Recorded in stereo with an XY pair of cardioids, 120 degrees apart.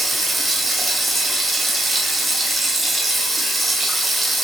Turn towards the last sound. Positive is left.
turn(degrees=-15)